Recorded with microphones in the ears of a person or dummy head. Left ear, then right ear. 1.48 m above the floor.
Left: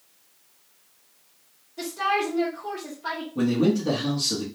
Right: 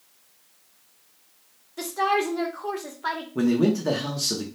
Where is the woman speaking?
45° right (ahead or behind), 1.0 m.